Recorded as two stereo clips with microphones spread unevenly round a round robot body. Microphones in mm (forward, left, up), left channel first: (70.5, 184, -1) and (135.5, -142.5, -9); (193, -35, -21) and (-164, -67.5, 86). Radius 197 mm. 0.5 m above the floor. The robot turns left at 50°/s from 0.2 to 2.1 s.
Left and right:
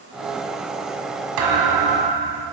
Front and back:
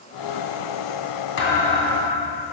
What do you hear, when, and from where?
1.4 s a thud: 55° right, 1.8 m; by 2.4 s 90° right, 1.8 m